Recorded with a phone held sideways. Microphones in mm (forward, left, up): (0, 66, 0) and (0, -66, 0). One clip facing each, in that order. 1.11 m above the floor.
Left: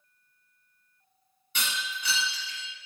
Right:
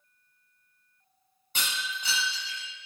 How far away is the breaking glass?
About 1.2 m.